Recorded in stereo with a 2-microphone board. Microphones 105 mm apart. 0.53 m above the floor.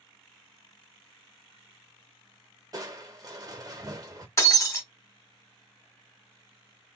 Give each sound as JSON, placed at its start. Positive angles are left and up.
{"t": 2.7, "sound": "crushing", "side_deg": -35, "distance_m": 0.9}
{"t": 4.4, "sound": "breaking glass", "side_deg": 25, "distance_m": 1.4}